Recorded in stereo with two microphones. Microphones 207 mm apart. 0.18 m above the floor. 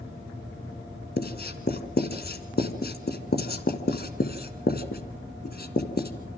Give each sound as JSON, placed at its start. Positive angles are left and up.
{"t": 1.2, "sound": "writing", "side_deg": 50, "distance_m": 2.0}